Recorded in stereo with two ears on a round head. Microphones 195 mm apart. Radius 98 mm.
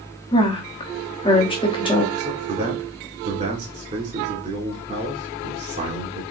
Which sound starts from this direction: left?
A woman speaking, at 0.3 s.